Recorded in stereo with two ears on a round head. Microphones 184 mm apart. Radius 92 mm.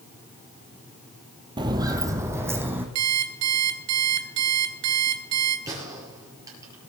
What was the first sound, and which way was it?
Footsteps, 20° right (ahead or behind).